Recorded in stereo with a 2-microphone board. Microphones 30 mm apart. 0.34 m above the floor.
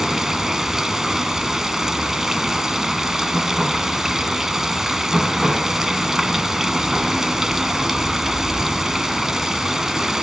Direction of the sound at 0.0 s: 10° right (ahead or behind).